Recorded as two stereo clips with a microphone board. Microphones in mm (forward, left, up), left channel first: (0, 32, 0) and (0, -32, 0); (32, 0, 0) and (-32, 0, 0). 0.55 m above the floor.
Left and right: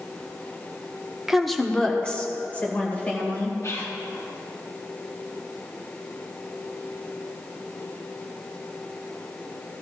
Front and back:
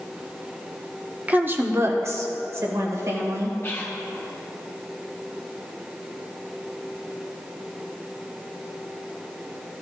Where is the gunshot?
I don't hear a gunshot.